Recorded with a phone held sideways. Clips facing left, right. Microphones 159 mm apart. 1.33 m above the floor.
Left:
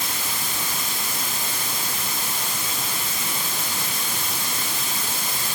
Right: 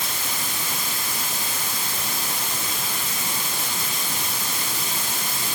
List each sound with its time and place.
Only background noise.